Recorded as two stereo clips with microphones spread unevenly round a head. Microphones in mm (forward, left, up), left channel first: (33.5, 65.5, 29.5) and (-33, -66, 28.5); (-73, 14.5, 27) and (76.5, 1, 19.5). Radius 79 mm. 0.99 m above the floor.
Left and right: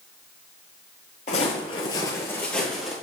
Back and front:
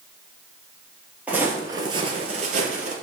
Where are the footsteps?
75° left, 1.2 m; by 3.0 s 30° right, 1.4 m.